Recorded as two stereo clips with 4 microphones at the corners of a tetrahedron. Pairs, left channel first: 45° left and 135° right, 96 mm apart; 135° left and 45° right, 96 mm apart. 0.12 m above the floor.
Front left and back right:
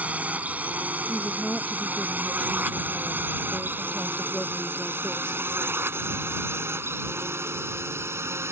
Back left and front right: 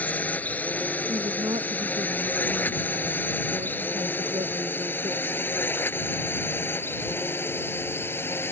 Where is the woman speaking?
40° right.